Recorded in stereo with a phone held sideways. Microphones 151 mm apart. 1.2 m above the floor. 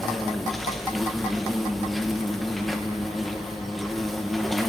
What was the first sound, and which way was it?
An insect, centre (ahead or behind).